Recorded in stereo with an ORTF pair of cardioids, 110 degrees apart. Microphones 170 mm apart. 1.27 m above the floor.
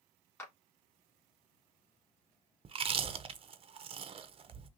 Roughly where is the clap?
Ahead.